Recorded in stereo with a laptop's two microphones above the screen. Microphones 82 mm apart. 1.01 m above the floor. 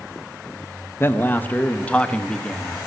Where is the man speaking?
30° left (ahead or behind), 1.0 m; by 2.8 s 10° left (ahead or behind), 1.7 m.